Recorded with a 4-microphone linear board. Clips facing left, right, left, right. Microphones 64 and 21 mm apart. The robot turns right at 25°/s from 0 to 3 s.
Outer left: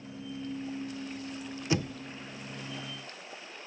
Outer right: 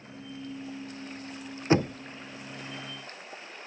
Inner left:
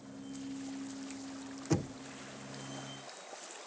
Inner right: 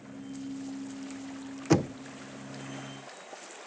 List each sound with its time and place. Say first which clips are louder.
1.7 s knocking: outer right 7 dB, inner right 9 dB; 40° right (ahead or behind); by 2.0 s 35° right (ahead or behind)